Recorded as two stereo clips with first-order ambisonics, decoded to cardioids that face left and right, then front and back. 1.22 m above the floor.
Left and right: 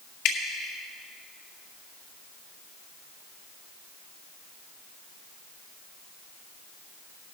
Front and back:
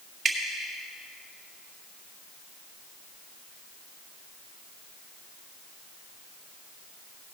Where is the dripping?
105° left, 1.8 m.